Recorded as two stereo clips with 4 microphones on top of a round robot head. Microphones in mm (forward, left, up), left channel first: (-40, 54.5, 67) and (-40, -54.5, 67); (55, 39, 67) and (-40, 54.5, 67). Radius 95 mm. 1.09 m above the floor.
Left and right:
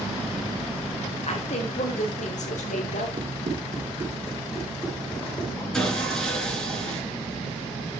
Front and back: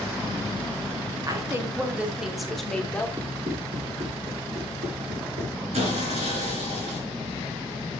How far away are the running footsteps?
About 3 m.